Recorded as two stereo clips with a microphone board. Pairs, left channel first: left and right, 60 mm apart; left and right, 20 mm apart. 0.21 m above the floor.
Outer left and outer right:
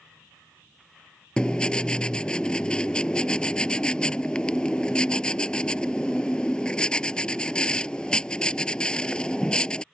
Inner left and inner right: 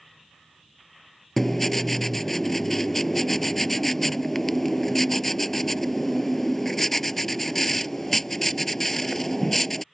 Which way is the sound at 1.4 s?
15° left (ahead or behind).